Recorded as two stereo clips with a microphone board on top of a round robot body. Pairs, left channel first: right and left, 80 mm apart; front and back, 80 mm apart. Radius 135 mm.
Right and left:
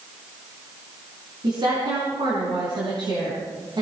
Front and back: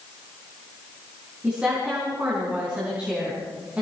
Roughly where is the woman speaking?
Left.